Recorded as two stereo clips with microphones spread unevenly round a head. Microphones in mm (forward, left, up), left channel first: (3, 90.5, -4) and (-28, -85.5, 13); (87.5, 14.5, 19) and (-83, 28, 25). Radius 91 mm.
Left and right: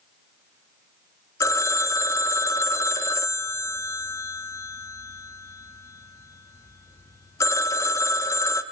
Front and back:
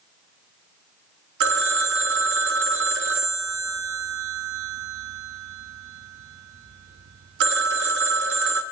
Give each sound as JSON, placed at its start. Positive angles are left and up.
{"t": 1.4, "sound": "a phone ringing", "azimuth_deg": 155, "distance_m": 0.6}